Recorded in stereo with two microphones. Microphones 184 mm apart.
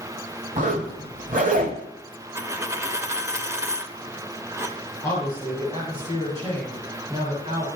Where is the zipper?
45° right (ahead or behind), 1.5 m.